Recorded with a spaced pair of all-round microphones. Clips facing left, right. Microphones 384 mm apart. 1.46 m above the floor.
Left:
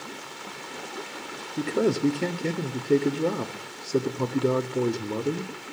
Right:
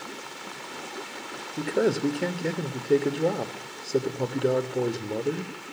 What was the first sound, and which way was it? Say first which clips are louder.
A man speaking: left 1 dB; 10° left (ahead or behind).